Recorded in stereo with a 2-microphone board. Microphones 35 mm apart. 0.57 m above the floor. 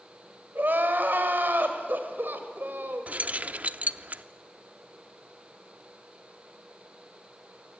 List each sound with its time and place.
0.6 s crying: 65° right (ahead or behind), 2 m
3.1 s keys jangling: 45° right (ahead or behind), 0.5 m